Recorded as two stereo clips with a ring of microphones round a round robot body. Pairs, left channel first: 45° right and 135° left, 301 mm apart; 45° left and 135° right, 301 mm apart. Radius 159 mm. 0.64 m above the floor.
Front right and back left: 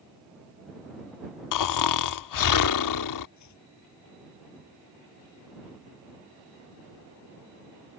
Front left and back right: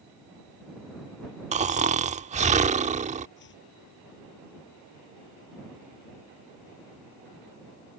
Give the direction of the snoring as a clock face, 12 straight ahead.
2 o'clock.